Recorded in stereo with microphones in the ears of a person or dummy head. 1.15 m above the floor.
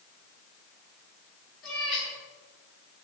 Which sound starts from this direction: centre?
A cat meowing, at 1.6 s.